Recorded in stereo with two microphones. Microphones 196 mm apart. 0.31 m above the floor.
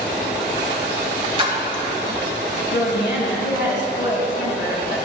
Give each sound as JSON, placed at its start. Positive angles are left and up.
{"t": 1.4, "sound": "a splash", "side_deg": -30, "distance_m": 1.5}
{"t": 2.7, "sound": "a woman speaking", "side_deg": 70, "distance_m": 3.0}